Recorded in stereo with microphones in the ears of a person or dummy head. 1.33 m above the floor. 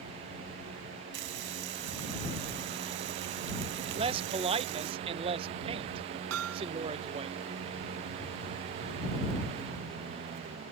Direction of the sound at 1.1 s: 65° right (ahead or behind).